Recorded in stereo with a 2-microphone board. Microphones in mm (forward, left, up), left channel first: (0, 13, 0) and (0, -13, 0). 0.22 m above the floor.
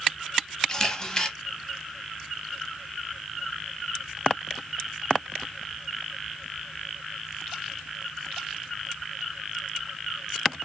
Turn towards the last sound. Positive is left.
turn(degrees=20)  # may be behind; listen again after turning